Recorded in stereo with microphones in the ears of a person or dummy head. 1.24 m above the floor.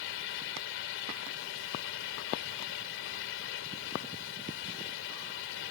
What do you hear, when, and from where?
0.0 s a fan: 75° left (ahead or behind)